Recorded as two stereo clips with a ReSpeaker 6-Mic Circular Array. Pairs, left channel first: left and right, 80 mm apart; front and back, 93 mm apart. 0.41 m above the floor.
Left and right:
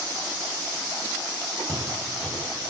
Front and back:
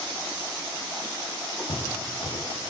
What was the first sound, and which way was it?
Footsteps, 10° left.